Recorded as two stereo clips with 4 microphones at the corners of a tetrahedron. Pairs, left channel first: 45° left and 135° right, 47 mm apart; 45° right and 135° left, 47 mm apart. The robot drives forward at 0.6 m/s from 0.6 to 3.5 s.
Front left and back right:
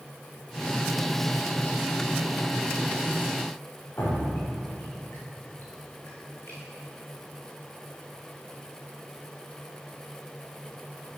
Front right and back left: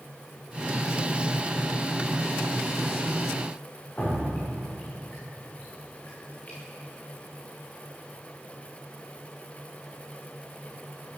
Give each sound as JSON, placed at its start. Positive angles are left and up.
{"t": 4.0, "sound": "dripping", "azimuth_deg": 10, "distance_m": 9.5}